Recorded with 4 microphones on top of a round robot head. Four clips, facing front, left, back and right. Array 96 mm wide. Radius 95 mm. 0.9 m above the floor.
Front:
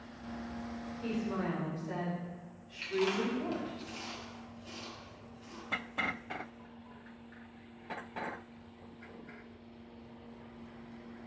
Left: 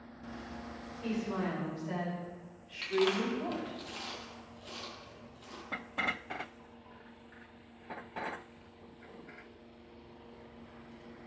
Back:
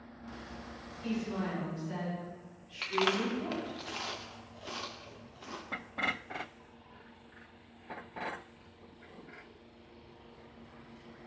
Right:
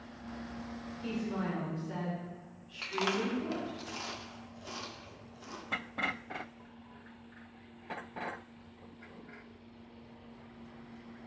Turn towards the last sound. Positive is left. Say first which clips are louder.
# left 3 dB, back 1 dB
turn(degrees=-160)